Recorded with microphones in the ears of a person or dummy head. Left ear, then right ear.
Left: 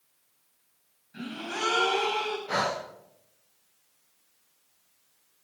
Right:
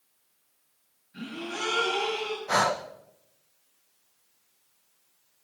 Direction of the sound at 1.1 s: 30° left (ahead or behind).